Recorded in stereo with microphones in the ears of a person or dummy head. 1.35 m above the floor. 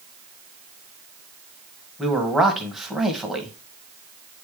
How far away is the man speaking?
About 1.6 m.